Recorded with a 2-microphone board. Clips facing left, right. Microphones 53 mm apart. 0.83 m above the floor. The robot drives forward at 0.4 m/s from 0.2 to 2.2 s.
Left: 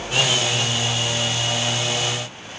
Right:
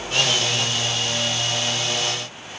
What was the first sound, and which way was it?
Only background noise.